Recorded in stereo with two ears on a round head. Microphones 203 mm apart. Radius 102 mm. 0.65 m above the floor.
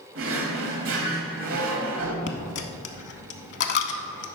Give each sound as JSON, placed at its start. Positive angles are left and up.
{"t": 0.1, "sound": "a drawer", "side_deg": -65, "distance_m": 1.2}
{"t": 2.3, "sound": "a dropped coin", "side_deg": 50, "distance_m": 0.7}